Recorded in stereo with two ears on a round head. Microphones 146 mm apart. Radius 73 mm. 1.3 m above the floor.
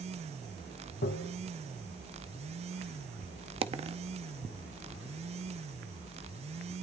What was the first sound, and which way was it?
Tapping, 75° left (ahead or behind).